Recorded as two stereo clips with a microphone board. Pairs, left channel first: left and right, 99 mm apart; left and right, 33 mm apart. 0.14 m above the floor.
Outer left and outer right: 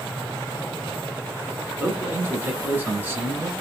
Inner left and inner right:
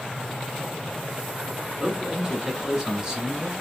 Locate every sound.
1.8 s a man speaking: 25° right (ahead or behind), 1.2 m